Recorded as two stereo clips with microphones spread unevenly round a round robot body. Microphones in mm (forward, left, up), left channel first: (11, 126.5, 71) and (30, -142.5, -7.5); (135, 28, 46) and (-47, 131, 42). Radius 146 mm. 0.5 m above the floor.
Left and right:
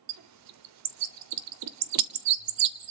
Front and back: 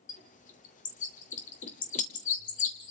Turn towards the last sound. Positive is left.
turn(degrees=-90)